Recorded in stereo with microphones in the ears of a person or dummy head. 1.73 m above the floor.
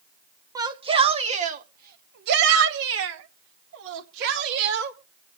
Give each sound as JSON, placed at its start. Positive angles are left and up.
{"t": 0.6, "sound": "a shout", "side_deg": -25, "distance_m": 1.5}